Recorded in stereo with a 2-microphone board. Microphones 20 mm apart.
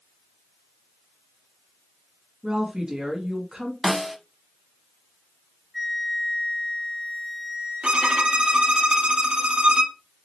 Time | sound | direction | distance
2.4 | a woman speaking | 30° right (ahead or behind) | 2 m
3.8 | a snare drum | centre (ahead or behind) | 0.7 m
5.7 | a flute | centre (ahead or behind) | 1.5 m
7.8 | a violin | 70° right (ahead or behind) | 1.0 m